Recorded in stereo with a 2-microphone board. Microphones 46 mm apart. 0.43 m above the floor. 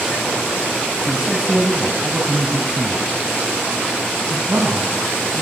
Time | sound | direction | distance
1.1 | a man speaking | 5° right (ahead or behind) | 3 m